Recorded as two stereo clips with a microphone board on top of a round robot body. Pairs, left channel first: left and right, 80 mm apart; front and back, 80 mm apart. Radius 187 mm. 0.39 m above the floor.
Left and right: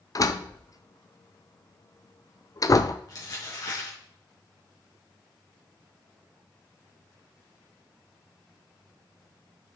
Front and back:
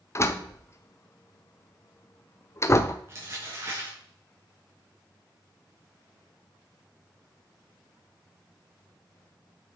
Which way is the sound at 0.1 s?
50° left.